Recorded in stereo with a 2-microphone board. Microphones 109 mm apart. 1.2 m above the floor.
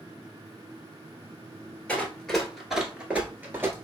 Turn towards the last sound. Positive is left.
turn(degrees=-25)  # may be behind; listen again after turning